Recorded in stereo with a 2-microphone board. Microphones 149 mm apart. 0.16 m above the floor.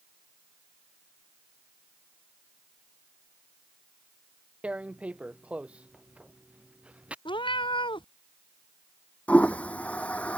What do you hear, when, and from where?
4.6 s tearing paper: 10° right (ahead or behind)
7.2 s a cat meowing: 35° left (ahead or behind)
9.3 s a toilet flushing: 10° left (ahead or behind)